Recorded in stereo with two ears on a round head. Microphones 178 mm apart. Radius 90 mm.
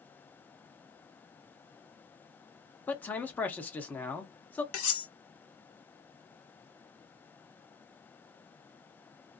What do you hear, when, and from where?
2.9 s a man speaking: 10° left (ahead or behind), 0.7 m
4.7 s cutlery clinking: 75° left (ahead or behind), 1.4 m